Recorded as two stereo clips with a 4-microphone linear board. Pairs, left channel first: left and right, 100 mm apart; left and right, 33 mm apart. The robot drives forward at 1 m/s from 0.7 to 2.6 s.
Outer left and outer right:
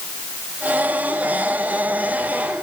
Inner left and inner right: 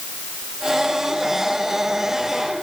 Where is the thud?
No thud in this recording.